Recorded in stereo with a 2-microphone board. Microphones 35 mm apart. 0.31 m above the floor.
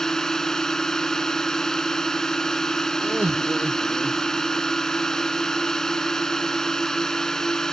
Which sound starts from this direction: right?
Laughter, at 3.0 s.